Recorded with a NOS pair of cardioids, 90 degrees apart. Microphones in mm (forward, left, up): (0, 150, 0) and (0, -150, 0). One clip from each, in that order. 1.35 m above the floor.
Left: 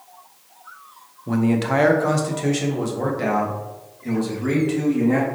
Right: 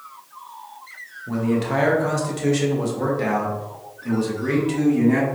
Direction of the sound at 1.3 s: 40° left.